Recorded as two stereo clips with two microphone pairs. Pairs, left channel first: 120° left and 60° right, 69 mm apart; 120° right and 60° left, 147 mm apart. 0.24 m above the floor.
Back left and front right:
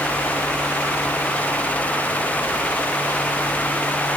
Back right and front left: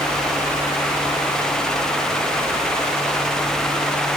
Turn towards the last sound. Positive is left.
No sound to turn to.